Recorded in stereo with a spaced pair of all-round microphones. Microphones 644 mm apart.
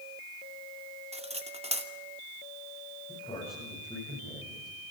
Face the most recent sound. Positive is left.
turn(degrees=10)  # may be behind; listen again after turning